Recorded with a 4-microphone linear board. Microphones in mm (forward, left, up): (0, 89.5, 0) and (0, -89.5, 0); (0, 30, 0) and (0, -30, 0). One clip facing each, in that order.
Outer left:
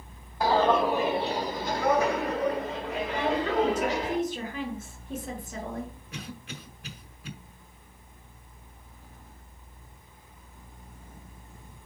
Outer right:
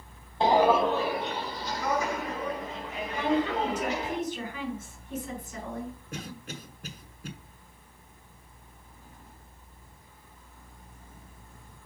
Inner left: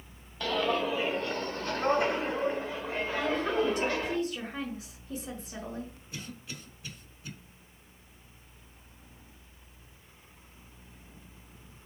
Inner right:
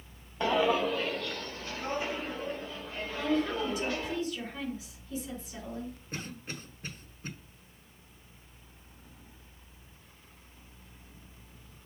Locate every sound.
0.4 s footsteps: 25° right (ahead or behind), 0.6 m; by 4.2 s 80° left, 2.5 m
3.2 s a woman speaking: 55° left (ahead or behind), 4 m
6.1 s a cough: 45° right (ahead or behind), 1.4 m